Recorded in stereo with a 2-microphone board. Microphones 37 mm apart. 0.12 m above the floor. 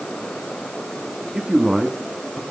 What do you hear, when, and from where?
1.3 s a man speaking: 20° right (ahead or behind), 1.1 m; by 2.4 s 25° left (ahead or behind), 1.3 m